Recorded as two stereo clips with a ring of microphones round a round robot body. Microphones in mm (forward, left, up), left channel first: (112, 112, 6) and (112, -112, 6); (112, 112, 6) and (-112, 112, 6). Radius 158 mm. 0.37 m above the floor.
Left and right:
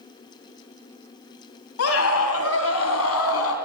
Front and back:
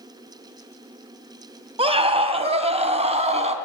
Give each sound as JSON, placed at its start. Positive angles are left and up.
{"t": 1.8, "sound": "a scream", "azimuth_deg": 115, "distance_m": 2.0}